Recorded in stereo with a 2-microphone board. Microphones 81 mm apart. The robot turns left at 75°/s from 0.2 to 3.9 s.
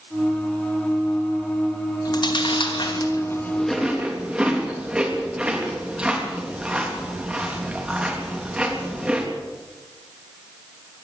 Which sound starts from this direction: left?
Chewing, at 2.0 s.